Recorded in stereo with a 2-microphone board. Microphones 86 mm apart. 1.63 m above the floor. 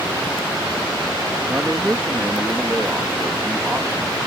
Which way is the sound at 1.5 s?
25° right (ahead or behind).